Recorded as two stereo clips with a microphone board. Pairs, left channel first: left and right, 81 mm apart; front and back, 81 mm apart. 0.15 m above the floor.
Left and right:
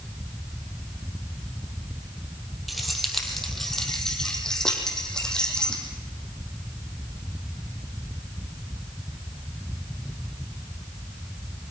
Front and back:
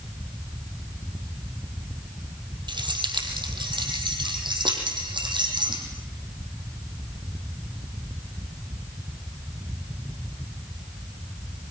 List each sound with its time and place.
2.7 s keys jangling: straight behind, 3 m; by 5.8 s 170° left, 5 m